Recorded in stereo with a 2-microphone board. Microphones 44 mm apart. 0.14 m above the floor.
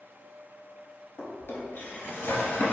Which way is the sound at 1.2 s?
60° left (ahead or behind).